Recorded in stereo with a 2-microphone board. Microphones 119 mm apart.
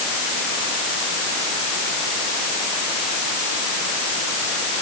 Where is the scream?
No scream in this recording.